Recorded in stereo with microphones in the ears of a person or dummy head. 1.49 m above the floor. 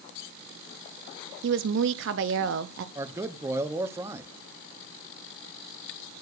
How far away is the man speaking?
About 0.7 m.